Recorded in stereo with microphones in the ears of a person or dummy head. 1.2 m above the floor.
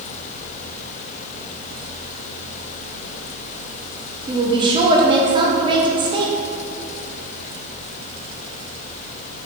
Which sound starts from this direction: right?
A woman speaking, at 4.3 s.